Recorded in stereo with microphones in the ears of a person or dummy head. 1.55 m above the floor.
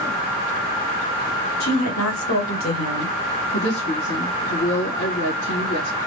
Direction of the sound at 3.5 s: 75° left (ahead or behind).